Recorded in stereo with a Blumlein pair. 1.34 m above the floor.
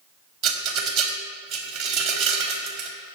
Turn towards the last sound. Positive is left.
turn(degrees=-35)